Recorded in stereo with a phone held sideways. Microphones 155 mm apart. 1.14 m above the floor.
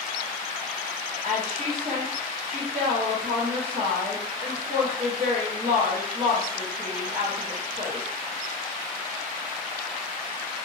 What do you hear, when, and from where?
1.2 s a woman speaking: 85° right, 1.6 m